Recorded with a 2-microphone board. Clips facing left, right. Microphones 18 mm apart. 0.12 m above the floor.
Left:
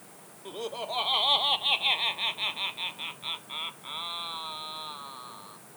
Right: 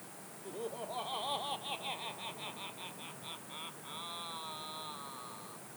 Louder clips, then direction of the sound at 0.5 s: Left 7 dB; 55° left (ahead or behind).